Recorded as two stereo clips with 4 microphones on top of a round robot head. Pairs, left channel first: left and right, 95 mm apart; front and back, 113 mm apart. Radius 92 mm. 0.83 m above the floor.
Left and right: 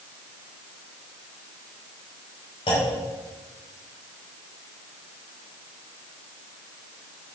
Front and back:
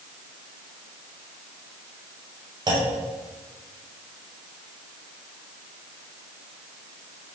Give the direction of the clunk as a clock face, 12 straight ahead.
8 o'clock.